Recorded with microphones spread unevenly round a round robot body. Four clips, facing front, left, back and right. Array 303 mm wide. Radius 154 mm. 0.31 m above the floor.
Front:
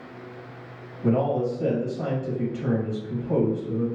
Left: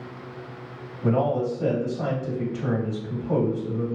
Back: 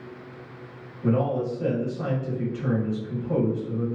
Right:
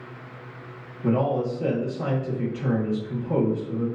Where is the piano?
No piano in this recording.